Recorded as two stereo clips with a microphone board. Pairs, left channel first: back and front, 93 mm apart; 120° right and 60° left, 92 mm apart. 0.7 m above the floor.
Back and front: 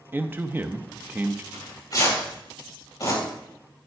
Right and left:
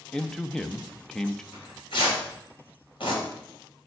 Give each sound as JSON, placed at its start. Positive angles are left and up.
{"t": 0.1, "sound": "a man speaking", "azimuth_deg": -40, "distance_m": 0.5}
{"t": 1.5, "sound": "tearing paper", "azimuth_deg": -135, "distance_m": 4.0}